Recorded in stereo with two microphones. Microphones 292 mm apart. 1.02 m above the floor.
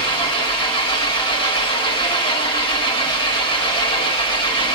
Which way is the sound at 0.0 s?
15° left (ahead or behind).